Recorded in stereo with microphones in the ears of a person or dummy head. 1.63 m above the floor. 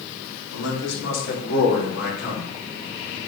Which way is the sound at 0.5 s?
80° left.